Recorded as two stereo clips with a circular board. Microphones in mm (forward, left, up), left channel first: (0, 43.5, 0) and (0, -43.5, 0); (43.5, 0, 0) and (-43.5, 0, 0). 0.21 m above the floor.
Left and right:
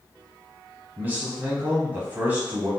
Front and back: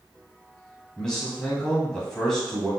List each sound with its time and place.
1.0 s a man speaking: 70° right, 1.0 m